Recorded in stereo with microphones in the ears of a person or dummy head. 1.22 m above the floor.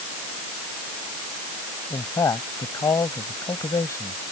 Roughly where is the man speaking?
Centre.